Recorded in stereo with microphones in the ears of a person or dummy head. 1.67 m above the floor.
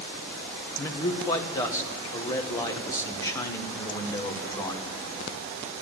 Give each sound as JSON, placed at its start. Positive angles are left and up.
{"t": 0.8, "sound": "a man speaking", "side_deg": 15, "distance_m": 1.2}